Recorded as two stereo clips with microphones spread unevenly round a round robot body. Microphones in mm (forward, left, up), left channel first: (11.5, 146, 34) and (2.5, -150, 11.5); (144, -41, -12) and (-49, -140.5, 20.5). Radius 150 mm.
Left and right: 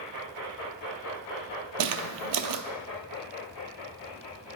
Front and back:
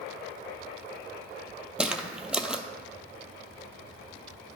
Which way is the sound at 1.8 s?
70° right.